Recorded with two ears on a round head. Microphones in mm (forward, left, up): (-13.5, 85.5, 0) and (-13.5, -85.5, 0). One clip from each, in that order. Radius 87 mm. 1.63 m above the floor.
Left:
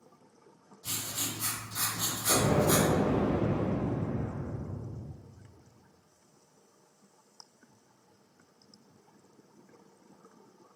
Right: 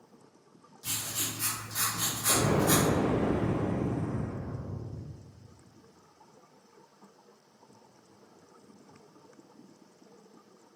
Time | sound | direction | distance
0.8 | writing | 50° right (ahead or behind) | 1.0 m
2.3 | an explosion | 60° right (ahead or behind) | 1.4 m